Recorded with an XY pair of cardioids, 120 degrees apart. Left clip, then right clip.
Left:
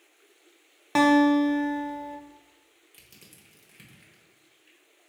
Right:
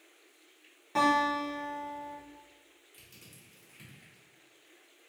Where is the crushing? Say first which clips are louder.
Left 2 dB; 30° left, 1.2 m.